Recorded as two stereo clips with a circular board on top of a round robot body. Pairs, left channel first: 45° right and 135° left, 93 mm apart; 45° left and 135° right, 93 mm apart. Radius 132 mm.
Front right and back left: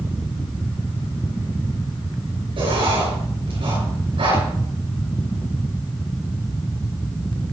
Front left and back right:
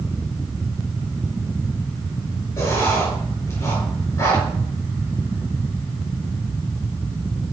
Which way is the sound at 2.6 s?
110° left.